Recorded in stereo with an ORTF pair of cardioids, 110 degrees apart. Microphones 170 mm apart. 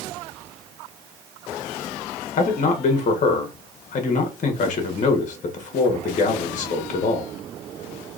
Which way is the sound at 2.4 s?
45° left.